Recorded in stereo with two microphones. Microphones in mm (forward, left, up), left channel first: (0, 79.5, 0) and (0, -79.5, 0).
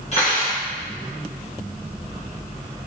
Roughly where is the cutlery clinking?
Left.